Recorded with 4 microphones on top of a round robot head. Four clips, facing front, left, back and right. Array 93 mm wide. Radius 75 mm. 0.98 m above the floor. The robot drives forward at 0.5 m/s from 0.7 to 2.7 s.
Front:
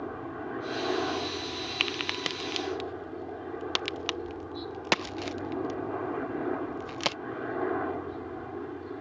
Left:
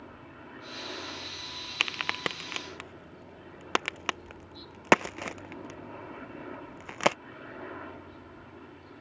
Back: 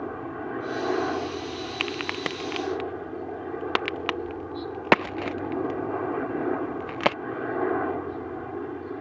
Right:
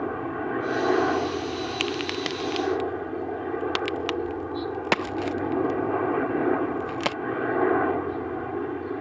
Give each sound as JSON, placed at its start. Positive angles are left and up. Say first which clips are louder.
{"t": 0.0, "sound": "a helicopter", "louder": "right 19 dB, back 4 dB", "azimuth_deg": -100}
{"t": 1.8, "sound": "a crack", "louder": "right 6 dB, back 4 dB", "azimuth_deg": 115}